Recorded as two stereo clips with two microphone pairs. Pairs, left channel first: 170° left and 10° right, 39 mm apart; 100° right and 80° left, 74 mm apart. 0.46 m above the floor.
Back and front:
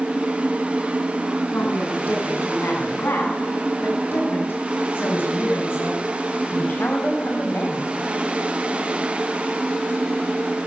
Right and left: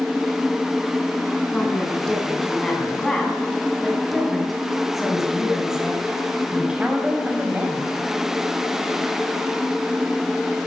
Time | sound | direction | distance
1.5 | a woman speaking | 175° right | 5.5 m